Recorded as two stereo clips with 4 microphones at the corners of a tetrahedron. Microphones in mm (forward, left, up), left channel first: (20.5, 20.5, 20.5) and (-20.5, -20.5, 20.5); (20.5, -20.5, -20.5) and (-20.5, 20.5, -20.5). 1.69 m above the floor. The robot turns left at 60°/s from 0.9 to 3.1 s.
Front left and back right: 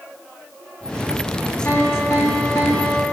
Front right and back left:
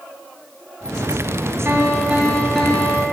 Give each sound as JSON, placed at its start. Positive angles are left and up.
{"t": 1.6, "sound": "a piano", "azimuth_deg": 95, "distance_m": 2.5}